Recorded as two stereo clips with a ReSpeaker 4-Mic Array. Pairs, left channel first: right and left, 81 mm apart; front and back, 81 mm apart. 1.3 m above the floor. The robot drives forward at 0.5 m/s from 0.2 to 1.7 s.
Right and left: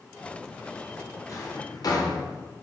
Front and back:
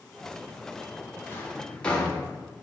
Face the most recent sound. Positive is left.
turn(degrees=-75)